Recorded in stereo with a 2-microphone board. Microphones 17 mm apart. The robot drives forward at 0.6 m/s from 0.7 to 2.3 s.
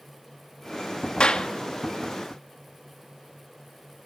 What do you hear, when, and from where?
1.2 s a clap: 65° left (ahead or behind), 1.9 m; by 1.5 s 70° left (ahead or behind), 1.9 m